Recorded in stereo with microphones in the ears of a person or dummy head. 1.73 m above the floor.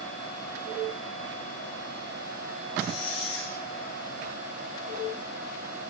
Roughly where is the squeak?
Left.